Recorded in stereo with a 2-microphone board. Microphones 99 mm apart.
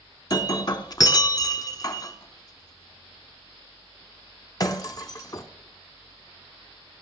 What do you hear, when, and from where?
0.3 s breaking glass: 40° left (ahead or behind), 0.8 m